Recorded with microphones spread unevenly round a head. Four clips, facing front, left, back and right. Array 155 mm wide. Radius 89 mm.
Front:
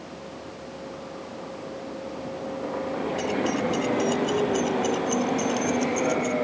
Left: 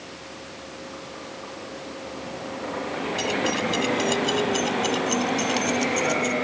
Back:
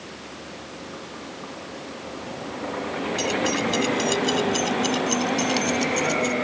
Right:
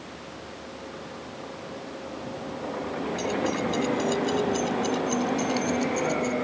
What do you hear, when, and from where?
3.2 s keys jangling: 115° left; by 6.3 s 125° left